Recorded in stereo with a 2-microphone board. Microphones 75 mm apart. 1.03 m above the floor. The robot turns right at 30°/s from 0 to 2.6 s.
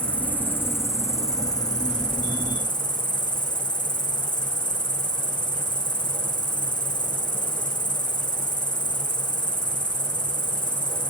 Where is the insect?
15° left, 5.5 m; by 11.1 s 90° left, 5.5 m.